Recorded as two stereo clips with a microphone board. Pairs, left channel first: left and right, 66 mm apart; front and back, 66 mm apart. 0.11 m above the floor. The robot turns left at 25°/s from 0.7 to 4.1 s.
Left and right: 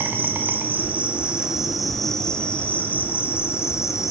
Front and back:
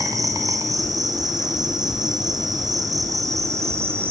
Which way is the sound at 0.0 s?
150° right.